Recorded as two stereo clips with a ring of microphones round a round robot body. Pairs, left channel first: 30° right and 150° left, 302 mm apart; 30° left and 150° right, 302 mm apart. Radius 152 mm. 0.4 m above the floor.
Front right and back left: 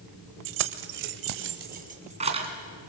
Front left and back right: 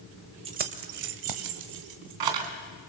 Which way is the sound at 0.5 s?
140° left.